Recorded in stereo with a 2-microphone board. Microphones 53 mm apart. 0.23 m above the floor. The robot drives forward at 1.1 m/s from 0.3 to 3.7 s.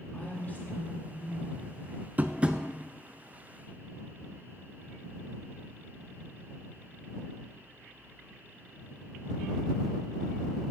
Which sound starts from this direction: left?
A woman speaking, at 0.1 s.